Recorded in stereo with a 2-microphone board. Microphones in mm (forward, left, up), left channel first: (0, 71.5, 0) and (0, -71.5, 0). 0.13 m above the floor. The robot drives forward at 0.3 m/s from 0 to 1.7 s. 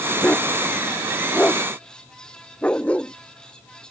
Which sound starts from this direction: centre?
A dog barking, at 0.2 s.